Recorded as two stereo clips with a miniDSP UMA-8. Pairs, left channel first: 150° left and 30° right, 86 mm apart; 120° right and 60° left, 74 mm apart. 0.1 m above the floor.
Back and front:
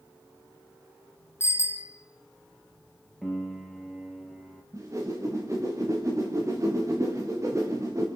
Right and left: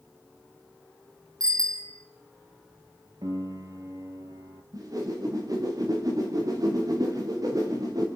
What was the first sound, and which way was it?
A bicycle bell, 95° left.